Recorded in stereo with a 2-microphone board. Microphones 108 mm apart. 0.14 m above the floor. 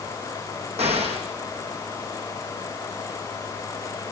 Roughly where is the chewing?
No chewing in this recording.